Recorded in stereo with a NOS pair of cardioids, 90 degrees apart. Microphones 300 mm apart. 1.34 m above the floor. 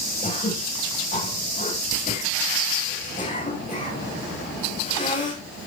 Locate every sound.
0.2 s throat clearing: 25° left, 9.5 m